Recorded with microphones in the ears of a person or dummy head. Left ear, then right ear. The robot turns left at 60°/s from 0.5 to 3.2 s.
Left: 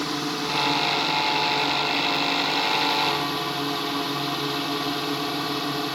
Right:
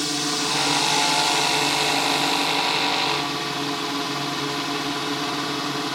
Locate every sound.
0.0 s a drone: 25° right; by 6.0 s 175° left